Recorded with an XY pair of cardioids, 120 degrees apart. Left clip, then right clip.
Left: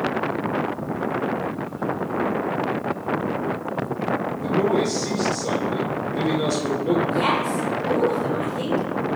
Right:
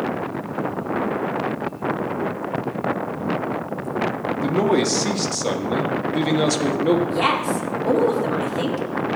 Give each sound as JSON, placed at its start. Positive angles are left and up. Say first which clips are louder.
{"t": 4.4, "sound": "a man speaking", "louder": "right 3 dB", "azimuth_deg": -60, "distance_m": 1.6}
{"t": 7.1, "sound": "a woman speaking", "louder": "right 1 dB", "azimuth_deg": -50, "distance_m": 3.5}